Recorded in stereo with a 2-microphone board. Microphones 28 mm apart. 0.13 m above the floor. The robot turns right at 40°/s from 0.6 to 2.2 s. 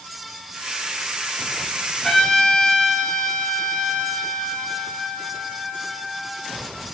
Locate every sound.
2.0 s a trumpet: 25° left (ahead or behind), 1.2 m; by 6.6 s 30° left (ahead or behind), 1.2 m